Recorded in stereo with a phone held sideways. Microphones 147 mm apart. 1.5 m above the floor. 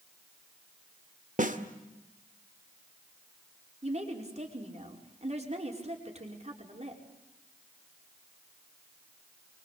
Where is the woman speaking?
45° right (ahead or behind), 5 m.